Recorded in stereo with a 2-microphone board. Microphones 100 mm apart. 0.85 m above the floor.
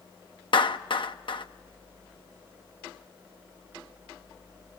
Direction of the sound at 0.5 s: 55° left (ahead or behind).